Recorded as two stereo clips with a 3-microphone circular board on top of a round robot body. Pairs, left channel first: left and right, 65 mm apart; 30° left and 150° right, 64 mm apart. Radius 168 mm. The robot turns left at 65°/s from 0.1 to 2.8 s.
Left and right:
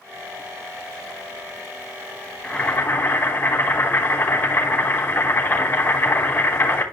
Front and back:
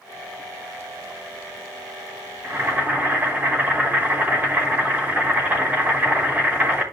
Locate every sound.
2.4 s boiling: 170° left, 4 m; by 6.8 s 145° left, 4 m